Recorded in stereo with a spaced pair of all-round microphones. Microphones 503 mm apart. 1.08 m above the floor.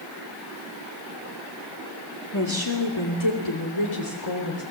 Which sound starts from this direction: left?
A woman speaking, at 2.3 s.